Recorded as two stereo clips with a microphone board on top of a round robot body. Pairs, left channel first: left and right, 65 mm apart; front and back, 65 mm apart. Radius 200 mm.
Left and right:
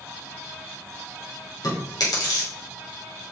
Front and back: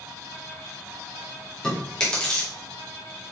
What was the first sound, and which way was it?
Chewing, 80° left.